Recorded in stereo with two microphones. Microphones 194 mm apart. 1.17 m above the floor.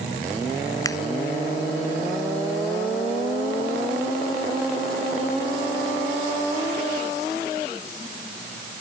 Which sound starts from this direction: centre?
A finger snap, at 0.8 s.